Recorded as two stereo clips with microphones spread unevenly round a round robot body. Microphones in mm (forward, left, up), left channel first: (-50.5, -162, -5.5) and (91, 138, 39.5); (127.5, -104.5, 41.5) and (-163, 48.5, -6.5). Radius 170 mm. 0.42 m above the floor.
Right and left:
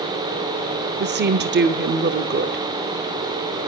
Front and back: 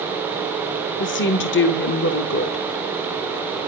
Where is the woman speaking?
15° left, 0.8 m.